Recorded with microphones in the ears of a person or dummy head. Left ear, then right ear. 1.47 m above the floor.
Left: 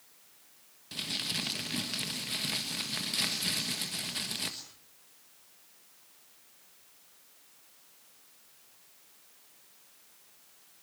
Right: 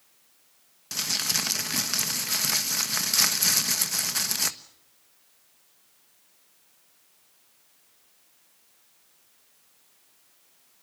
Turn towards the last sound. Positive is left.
turn(degrees=-45)  # may be behind; listen again after turning